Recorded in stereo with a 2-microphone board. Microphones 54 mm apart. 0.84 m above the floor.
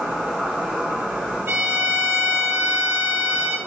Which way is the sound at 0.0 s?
15° right (ahead or behind).